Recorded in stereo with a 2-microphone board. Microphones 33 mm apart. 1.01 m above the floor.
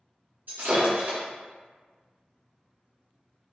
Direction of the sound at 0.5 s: 60° right (ahead or behind).